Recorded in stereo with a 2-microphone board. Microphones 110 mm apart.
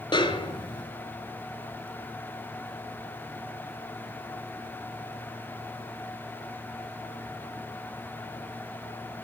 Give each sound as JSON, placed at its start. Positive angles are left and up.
{"t": 0.1, "sound": "a snare drum", "side_deg": 45, "distance_m": 1.1}